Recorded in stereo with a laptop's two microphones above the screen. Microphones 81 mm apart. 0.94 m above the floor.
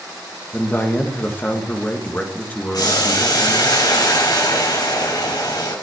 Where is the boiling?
60° left (ahead or behind), 5 m.